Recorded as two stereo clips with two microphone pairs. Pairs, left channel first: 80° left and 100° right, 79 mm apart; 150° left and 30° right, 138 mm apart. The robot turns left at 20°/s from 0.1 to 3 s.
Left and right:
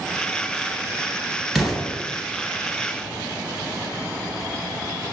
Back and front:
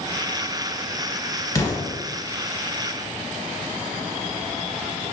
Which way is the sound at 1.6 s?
175° left.